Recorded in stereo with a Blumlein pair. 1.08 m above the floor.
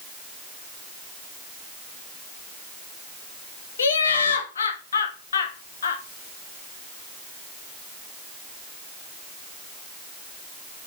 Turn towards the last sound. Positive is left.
turn(degrees=70)